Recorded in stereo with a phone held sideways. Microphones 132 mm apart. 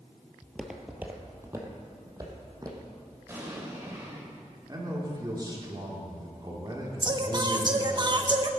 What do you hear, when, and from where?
0.4 s footsteps: centre (ahead or behind), 1.3 m; by 2.9 s 30° right (ahead or behind), 3 m
3.3 s an explosion: 20° right (ahead or behind), 3 m
4.7 s a man speaking: 30° right (ahead or behind), 3 m
7.0 s singing: 35° right (ahead or behind), 0.9 m